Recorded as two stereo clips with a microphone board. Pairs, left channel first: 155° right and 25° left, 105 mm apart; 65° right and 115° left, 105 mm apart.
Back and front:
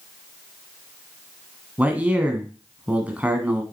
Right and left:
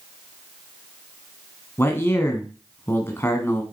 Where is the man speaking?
35° right, 1.4 m.